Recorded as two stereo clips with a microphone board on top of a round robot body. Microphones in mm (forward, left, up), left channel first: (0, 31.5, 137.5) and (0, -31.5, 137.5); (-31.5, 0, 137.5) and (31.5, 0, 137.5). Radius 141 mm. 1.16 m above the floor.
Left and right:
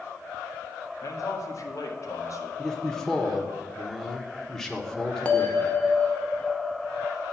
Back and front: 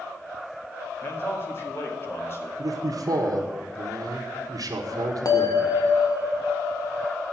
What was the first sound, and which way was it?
A man speaking, 130° left.